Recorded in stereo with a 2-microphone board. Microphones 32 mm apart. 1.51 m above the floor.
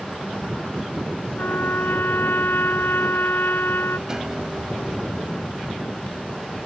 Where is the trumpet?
75° left (ahead or behind).